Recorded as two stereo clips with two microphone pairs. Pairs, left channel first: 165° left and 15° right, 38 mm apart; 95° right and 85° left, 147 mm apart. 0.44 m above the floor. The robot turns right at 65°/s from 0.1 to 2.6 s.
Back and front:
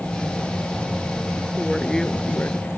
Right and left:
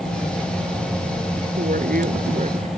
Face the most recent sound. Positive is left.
turn(degrees=130)